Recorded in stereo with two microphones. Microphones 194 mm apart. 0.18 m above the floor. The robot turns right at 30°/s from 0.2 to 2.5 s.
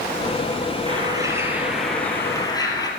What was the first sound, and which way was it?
A bird, 30° right.